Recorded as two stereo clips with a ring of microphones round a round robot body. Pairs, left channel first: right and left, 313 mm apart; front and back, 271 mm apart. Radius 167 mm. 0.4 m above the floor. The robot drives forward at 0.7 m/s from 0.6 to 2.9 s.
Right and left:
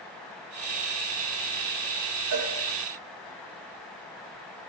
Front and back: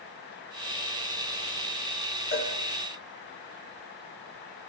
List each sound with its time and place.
2.3 s a cowbell: 45° left, 7 m